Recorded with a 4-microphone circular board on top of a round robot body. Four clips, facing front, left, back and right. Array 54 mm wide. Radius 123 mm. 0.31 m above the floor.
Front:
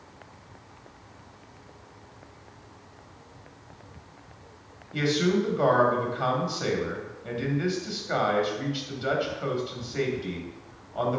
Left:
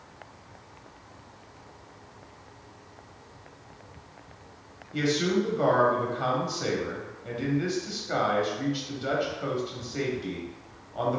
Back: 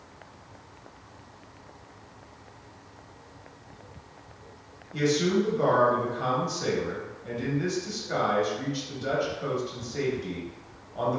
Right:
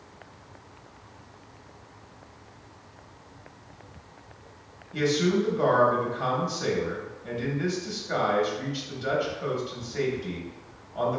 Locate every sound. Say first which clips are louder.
4.9 s a man speaking: right 1 dB, even; 10° left, 1.0 m